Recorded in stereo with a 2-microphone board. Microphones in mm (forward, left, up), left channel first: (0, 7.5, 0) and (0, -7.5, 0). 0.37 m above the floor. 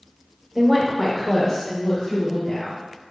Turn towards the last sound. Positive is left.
turn(degrees=70)  # may be behind; listen again after turning